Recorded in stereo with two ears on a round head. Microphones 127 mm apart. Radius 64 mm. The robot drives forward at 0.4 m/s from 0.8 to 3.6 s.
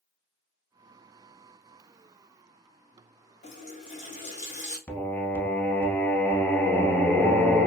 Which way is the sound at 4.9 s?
15° left (ahead or behind).